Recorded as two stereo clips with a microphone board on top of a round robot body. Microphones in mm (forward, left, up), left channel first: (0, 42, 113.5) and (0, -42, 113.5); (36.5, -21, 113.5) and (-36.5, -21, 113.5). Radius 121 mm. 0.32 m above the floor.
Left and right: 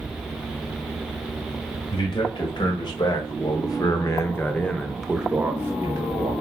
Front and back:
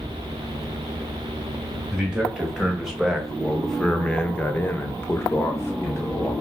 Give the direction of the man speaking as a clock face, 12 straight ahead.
9 o'clock.